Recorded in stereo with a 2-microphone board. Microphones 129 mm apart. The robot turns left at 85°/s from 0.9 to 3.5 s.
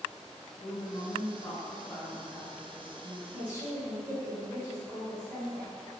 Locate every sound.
0.6 s a woman speaking: 135° left, 1.0 m; by 3.2 s 65° right, 1.0 m
3.3 s a woman speaking: 15° right (ahead or behind), 0.9 m